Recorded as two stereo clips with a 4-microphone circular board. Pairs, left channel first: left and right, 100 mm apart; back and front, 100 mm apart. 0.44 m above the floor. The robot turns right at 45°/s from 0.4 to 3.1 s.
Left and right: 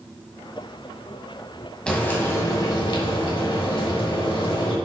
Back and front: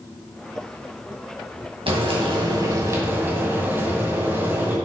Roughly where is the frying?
Ahead.